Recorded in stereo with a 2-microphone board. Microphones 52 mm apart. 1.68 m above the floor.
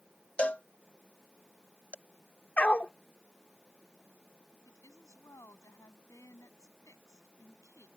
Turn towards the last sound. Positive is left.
turn(degrees=90)